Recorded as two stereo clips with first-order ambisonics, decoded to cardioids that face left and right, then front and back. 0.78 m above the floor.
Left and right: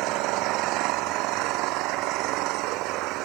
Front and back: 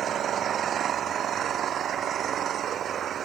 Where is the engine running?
120° right.